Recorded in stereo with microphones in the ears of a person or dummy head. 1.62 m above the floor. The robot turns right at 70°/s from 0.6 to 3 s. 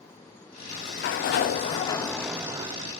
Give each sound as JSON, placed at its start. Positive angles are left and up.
{"t": 0.6, "sound": "a sliding door", "azimuth_deg": 60, "distance_m": 0.7}